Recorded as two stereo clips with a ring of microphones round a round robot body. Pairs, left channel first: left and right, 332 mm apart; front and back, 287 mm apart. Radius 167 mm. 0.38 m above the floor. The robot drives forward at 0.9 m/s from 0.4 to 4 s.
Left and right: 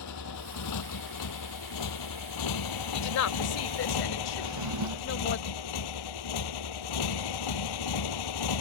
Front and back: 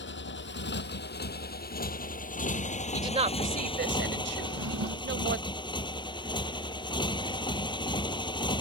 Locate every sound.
0.0 s a motorcycle: 50° left; by 8.6 s 75° left
2.9 s a woman speaking: 105° left; by 5.4 s 135° left
4.4 s a drawer: 130° right